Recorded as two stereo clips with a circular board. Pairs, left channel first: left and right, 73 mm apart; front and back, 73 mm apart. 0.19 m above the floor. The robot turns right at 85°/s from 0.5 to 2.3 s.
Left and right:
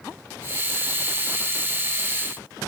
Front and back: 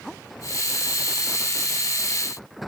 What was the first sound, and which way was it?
Only background noise.